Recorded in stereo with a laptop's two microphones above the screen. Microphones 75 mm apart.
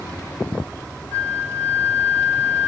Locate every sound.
1.1 s a flute: 30° left (ahead or behind), 1.6 m